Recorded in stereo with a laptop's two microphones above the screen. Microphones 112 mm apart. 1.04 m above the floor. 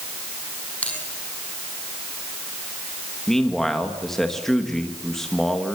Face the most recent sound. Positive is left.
turn(degrees=5)  # may be behind; listen again after turning